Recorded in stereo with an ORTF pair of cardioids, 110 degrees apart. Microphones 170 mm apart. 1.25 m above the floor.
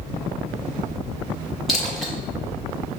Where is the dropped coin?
Straight ahead, 1.8 m.